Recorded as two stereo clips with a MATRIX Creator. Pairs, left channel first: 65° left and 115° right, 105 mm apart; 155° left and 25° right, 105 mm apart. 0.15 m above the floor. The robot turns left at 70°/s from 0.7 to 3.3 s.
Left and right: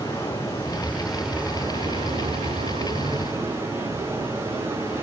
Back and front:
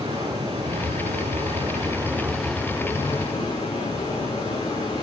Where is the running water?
5° left, 5 m; by 5.0 s 175° right, 5 m.